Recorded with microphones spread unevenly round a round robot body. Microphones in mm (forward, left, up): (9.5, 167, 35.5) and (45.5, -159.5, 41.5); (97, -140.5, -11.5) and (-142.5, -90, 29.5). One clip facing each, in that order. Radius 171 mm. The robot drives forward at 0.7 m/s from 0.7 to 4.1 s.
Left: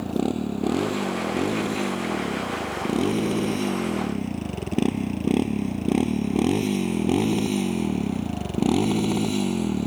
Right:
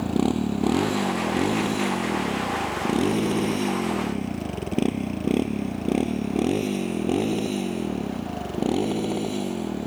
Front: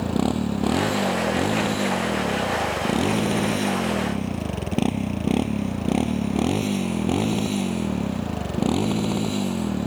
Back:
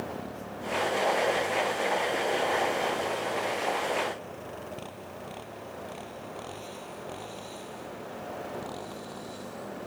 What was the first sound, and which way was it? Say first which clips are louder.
A motorcycle: right 2 dB, front 15 dB; 10° right.